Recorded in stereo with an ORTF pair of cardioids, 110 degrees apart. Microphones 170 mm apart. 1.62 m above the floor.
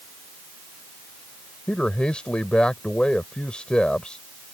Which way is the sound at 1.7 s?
5° left.